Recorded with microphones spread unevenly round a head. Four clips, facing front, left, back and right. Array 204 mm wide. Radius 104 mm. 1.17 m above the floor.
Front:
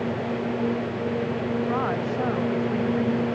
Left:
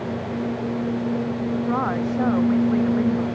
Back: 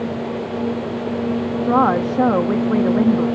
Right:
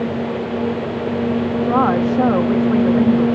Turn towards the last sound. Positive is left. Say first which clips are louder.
# right 10 dB, back 9 dB
turn(degrees=-150)